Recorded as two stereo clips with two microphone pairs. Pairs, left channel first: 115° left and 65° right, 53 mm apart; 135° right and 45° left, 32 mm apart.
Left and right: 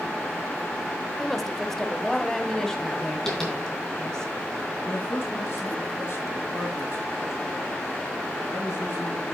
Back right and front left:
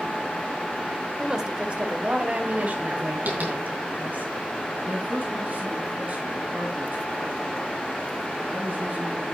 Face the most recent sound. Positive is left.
turn(degrees=75)